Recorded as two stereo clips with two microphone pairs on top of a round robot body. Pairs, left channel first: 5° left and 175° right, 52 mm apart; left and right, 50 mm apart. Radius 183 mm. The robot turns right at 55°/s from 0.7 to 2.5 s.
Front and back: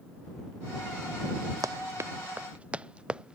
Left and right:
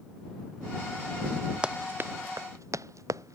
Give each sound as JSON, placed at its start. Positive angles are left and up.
{"t": 1.6, "sound": "running footsteps", "azimuth_deg": -160}